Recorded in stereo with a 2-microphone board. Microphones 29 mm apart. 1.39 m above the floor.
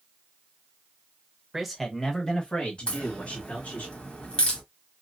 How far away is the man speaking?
About 1.1 m.